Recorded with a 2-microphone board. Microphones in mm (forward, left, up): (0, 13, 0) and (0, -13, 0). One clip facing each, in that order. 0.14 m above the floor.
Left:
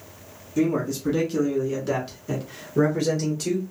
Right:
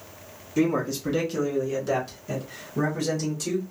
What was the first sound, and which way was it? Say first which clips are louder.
A man speaking: left 1 dB; 25° right (ahead or behind).